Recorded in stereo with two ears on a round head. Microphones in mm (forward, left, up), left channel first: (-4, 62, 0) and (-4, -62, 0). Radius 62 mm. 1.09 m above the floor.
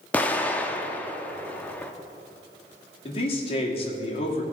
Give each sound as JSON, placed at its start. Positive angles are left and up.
{"t": 0.1, "sound": "an explosion", "side_deg": 10, "distance_m": 0.7}
{"t": 3.0, "sound": "a man speaking", "side_deg": 40, "distance_m": 2.0}